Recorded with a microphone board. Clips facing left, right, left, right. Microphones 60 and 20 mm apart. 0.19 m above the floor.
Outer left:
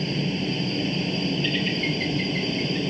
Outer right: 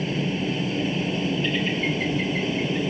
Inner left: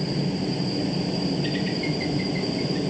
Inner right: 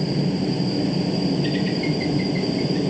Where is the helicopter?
5° right (ahead or behind); by 2.9 s 10° right (ahead or behind).